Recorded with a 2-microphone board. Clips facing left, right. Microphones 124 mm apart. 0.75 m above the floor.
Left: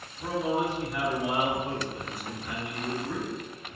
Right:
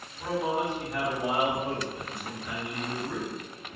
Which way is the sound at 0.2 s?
60° right (ahead or behind).